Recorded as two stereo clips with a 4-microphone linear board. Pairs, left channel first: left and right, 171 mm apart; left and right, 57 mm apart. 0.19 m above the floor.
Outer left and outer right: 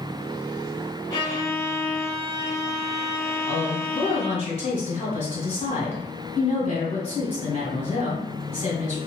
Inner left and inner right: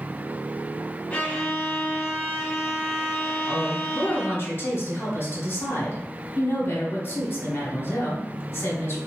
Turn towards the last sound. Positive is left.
turn(degrees=40)  # may be behind; listen again after turning